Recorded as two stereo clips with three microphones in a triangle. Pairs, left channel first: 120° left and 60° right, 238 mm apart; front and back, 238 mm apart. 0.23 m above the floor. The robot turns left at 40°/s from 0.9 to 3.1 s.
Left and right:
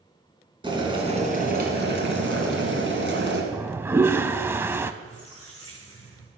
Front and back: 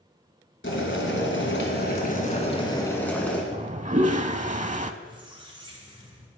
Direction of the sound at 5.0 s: 110° left.